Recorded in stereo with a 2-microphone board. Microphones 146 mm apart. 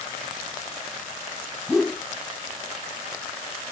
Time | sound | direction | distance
1.7 | a whoosh | centre (ahead or behind) | ?